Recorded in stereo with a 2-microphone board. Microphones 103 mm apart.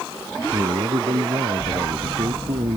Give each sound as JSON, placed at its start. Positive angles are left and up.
{"t": 0.5, "sound": "a man speaking", "side_deg": -80}